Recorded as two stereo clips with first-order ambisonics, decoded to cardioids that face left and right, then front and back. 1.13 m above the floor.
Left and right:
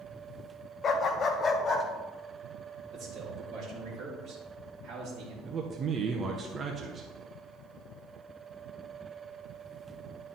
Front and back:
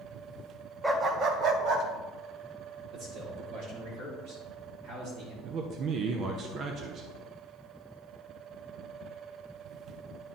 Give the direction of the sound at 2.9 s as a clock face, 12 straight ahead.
5 o'clock.